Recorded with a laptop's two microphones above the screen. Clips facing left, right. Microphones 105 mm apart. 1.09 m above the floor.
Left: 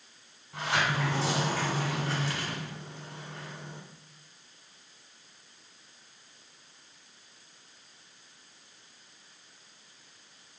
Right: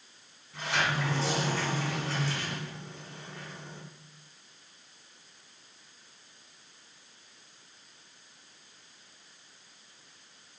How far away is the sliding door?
About 1.3 m.